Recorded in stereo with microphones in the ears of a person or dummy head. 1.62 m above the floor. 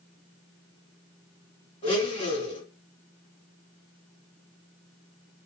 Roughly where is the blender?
Left.